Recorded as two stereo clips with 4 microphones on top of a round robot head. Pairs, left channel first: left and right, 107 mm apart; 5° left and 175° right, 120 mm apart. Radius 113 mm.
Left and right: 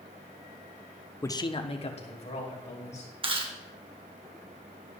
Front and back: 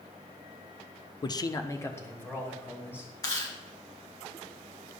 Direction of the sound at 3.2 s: 55° right.